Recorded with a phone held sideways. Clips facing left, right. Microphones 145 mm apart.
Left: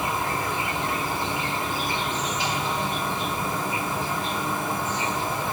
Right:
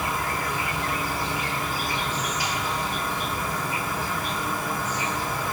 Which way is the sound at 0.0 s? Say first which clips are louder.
Left 1 dB; 25° left (ahead or behind).